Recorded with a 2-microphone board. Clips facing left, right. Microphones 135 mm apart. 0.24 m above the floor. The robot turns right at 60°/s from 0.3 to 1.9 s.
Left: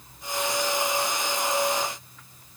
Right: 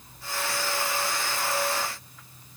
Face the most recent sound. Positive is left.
No sound to turn to.